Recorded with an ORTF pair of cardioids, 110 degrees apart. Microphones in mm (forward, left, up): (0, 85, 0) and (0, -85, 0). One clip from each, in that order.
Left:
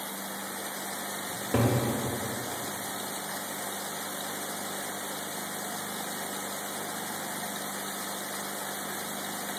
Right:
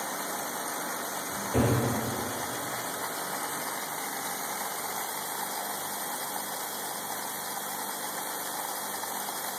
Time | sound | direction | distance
1.3 | a cupboard door | 50° left | 0.7 m